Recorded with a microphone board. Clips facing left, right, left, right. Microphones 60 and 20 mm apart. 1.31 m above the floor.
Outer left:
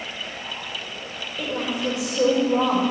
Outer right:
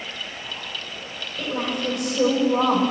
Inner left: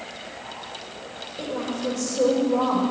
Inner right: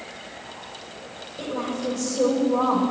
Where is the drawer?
I don't hear a drawer.